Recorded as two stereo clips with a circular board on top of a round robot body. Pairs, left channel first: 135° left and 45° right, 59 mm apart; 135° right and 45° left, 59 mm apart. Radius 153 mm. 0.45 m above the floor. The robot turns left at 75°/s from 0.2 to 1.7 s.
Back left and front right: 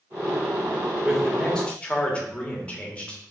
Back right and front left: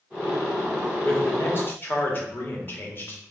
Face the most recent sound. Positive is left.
turn(degrees=-165)